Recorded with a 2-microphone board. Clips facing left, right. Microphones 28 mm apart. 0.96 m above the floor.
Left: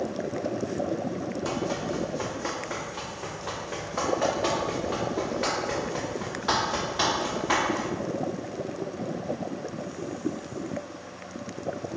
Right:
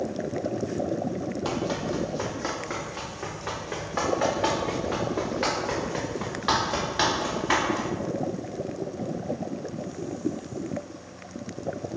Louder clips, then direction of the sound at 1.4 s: Right 1 dB; 35° right (ahead or behind).